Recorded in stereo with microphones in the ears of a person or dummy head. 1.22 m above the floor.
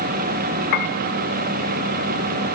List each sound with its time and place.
0.7 s a piano: 50° left (ahead or behind), 1.1 m